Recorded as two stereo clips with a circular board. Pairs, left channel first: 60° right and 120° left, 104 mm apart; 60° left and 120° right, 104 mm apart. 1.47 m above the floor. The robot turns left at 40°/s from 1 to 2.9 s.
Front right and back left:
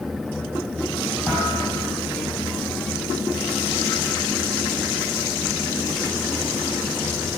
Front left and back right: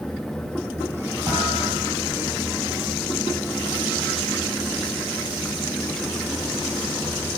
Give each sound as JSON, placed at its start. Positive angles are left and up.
{"t": 1.3, "sound": "a thud", "azimuth_deg": -145, "distance_m": 9.5}